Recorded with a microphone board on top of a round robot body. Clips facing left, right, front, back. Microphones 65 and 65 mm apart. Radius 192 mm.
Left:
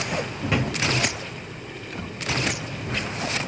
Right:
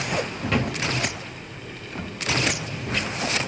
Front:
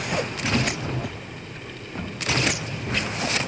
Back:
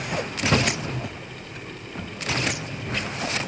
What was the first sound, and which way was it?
A drawer, 170° left.